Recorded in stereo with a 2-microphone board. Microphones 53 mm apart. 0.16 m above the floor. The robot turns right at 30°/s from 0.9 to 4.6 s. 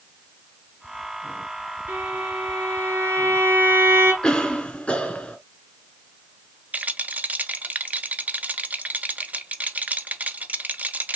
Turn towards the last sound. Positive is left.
turn(degrees=-30)  # may be behind; listen again after turning